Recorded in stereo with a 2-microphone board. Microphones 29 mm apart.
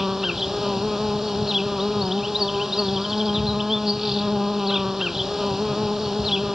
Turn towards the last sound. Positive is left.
turn(degrees=-10)  # may be behind; listen again after turning